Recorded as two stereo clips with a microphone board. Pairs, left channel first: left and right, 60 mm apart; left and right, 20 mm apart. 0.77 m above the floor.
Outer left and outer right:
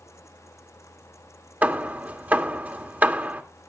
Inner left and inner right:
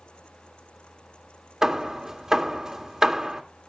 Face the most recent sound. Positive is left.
turn(degrees=-30)  # may be behind; listen again after turning